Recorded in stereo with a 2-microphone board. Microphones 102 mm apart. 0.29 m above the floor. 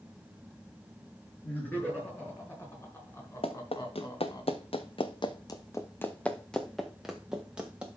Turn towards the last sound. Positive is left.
turn(degrees=-10)  # may be behind; listen again after turning